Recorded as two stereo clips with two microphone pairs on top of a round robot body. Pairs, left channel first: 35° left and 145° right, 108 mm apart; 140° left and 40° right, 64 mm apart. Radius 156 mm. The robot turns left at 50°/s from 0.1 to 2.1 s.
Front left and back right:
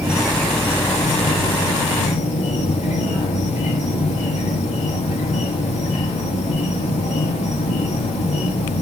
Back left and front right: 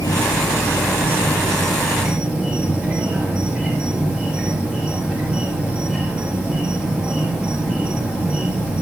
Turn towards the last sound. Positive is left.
turn(degrees=35)